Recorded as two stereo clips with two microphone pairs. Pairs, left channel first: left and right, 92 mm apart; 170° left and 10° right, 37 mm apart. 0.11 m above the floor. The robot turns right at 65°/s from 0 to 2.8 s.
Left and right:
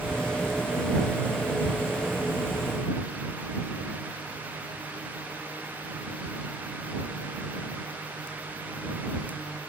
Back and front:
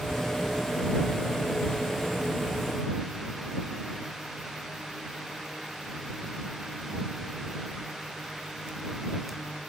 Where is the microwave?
No microwave in this recording.